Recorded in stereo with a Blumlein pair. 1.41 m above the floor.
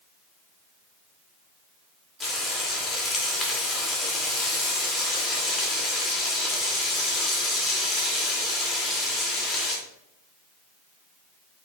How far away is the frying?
About 3 m.